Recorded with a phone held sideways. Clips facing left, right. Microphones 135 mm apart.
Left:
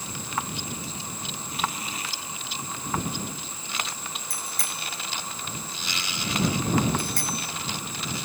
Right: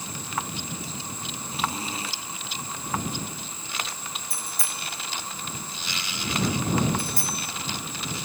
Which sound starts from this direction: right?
A zipper, at 1.5 s.